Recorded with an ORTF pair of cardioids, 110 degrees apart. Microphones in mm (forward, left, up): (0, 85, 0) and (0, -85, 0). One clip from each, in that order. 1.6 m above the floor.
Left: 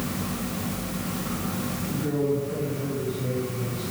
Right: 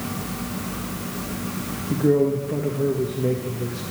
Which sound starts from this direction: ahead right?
A man speaking, at 1.9 s.